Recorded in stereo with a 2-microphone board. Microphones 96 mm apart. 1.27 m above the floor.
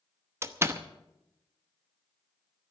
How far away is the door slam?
About 0.8 m.